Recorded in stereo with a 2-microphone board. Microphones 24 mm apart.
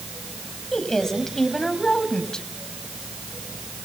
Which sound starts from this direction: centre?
A woman speaking, at 0.7 s.